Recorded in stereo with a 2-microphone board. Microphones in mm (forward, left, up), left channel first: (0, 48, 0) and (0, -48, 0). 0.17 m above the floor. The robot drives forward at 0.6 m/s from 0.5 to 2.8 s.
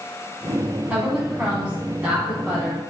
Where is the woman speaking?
10° right (ahead or behind), 1.2 m.